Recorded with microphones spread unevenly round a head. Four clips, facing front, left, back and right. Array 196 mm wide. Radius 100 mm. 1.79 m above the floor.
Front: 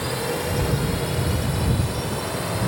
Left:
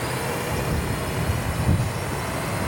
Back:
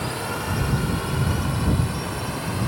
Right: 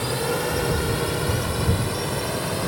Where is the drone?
90° right.